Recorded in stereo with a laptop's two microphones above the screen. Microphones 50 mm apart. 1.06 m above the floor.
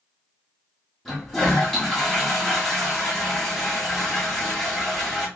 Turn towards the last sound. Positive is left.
turn(degrees=10)  # may be behind; listen again after turning